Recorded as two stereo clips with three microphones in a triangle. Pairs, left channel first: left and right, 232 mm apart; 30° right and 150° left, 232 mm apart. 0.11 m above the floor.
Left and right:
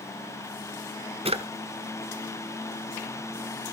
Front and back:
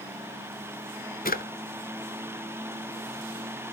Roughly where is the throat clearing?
No throat clearing in this recording.